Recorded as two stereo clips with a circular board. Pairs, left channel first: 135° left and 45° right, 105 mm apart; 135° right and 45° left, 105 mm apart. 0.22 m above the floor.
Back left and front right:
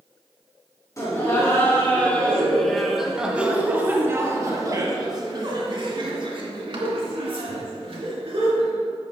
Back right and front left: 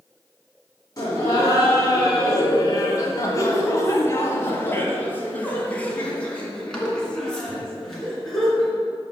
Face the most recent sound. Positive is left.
turn(degrees=-45)